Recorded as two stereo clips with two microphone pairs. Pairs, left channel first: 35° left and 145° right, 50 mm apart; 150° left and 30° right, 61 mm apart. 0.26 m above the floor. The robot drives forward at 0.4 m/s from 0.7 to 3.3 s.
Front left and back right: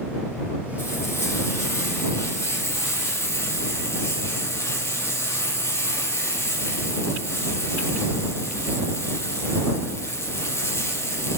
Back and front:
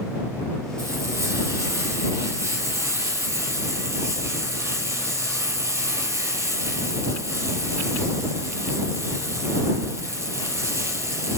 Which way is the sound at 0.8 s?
10° left.